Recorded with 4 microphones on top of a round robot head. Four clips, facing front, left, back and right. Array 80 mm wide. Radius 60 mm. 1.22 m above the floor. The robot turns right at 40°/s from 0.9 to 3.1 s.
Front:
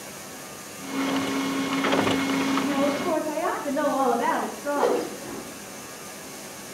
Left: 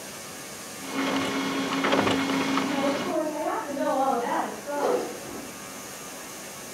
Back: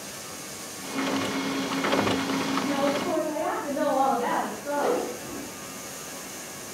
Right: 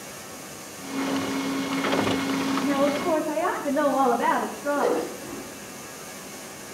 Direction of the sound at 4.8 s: Straight ahead.